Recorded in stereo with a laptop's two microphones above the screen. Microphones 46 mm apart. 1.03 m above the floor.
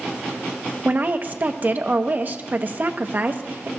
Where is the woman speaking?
40° right (ahead or behind), 1.3 m.